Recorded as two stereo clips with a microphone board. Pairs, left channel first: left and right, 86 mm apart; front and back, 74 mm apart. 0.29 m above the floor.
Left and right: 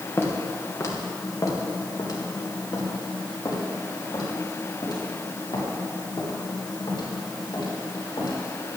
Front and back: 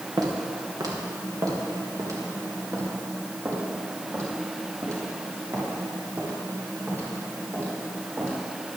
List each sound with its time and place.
0.2 s footsteps: 150° left, 3.5 m; by 8.4 s 120° left, 8.5 m